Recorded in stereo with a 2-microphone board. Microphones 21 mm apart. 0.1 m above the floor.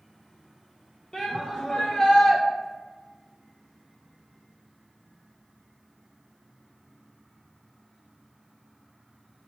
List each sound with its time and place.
1.1 s a shout: 35° left (ahead or behind), 2.5 m; by 2.4 s 30° left (ahead or behind), 1.5 m